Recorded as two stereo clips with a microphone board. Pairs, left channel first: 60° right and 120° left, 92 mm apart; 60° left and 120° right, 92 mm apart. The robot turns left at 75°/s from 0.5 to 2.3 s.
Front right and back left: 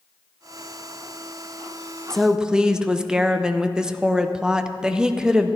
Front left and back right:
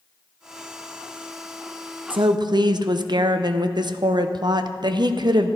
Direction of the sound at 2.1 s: 145° right.